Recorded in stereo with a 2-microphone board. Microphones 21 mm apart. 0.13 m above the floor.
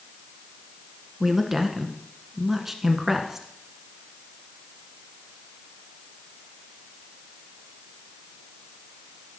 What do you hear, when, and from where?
1.2 s a woman speaking: 15° right (ahead or behind), 1.2 m